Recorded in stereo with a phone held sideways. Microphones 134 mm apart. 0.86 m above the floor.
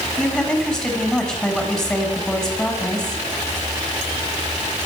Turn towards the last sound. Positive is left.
turn(degrees=5)  # may be behind; listen again after turning